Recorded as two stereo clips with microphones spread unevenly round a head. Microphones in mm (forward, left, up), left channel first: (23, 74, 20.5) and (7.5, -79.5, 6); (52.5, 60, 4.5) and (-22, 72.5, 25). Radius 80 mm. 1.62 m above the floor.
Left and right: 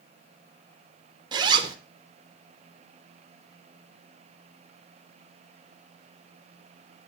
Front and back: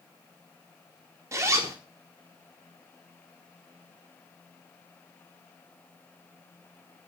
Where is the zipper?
155° right, 0.9 m.